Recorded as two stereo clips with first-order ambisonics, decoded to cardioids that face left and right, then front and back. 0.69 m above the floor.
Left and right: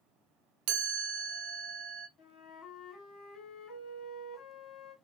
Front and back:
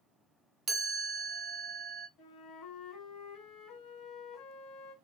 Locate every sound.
0.7 s a chime: 110° right, 0.8 m
2.2 s a flute: 35° left, 1.3 m